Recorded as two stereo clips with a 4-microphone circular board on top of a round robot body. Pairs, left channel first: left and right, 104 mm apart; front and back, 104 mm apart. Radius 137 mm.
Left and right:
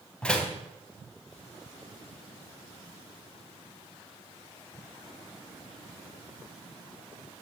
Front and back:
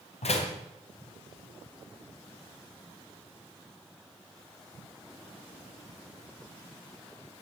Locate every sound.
0.2 s a door slam: 10° left, 3 m